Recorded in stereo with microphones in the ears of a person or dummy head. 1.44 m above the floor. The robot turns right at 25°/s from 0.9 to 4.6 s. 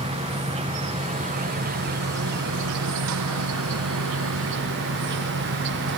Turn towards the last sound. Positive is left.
turn(degrees=-60)